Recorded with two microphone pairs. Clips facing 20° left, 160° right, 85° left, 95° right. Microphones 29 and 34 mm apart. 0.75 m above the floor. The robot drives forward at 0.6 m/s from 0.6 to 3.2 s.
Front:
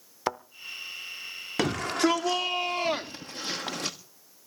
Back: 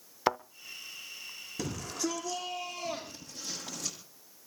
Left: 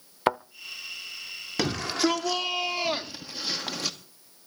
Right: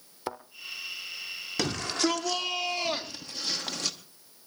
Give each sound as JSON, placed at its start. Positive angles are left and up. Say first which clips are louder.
{"t": 0.3, "sound": "a thud", "louder": "back 2 dB, left 11 dB", "azimuth_deg": 115, "distance_m": 0.6}
{"t": 1.6, "sound": "a shout", "louder": "front 10 dB, left 3 dB", "azimuth_deg": 5, "distance_m": 2.0}